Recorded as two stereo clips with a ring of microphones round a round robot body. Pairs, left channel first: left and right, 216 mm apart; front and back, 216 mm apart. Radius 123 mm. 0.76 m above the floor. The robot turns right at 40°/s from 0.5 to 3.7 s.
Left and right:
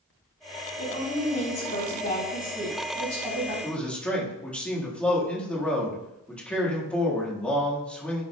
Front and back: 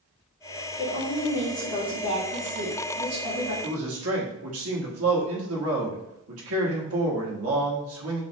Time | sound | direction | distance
0.8 | a woman speaking | 85° left | 2 m
3.6 | a man speaking | 170° left | 1.3 m